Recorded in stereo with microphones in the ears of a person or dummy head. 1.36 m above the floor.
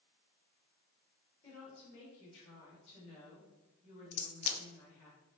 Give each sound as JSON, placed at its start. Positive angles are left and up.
{"t": 1.4, "sound": "a woman speaking", "side_deg": 35, "distance_m": 2.0}
{"t": 4.1, "sound": "a crack", "side_deg": 40, "distance_m": 0.6}